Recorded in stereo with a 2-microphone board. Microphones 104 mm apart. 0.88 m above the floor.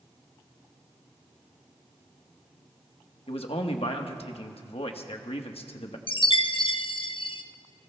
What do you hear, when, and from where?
3.3 s a man speaking: 70° left (ahead or behind), 1.2 m
6.1 s a chime: 55° left (ahead or behind), 0.6 m